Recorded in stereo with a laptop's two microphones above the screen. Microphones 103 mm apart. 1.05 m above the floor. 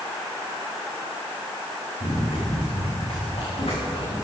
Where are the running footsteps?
70° left (ahead or behind), 5.5 m; by 4.2 s 60° left (ahead or behind), 6 m.